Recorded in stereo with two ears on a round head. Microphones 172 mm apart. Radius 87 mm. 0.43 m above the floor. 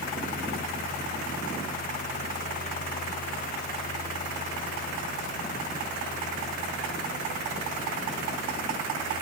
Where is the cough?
No cough in this recording.